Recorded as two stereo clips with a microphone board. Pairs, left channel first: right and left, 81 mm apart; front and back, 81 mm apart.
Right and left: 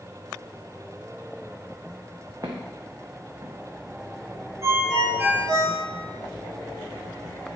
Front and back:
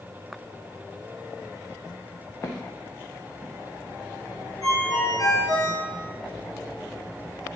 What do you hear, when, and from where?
2.4 s footsteps: 55° left, 0.8 m
4.6 s a ringtone: 45° left, 1.6 m